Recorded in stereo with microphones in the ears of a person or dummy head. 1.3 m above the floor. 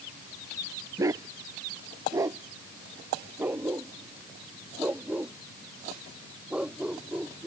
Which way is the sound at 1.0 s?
15° right (ahead or behind).